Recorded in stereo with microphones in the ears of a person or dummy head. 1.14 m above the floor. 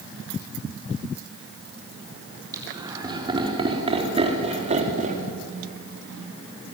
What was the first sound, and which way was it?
Laughter, 15° right (ahead or behind).